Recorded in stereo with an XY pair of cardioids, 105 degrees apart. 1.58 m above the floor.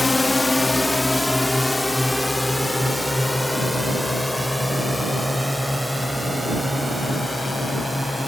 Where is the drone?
20° left; by 8.3 s straight ahead.